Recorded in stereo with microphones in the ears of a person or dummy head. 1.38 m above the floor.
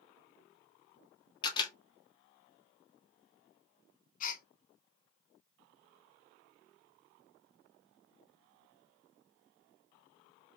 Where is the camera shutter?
30° left (ahead or behind), 1.3 m.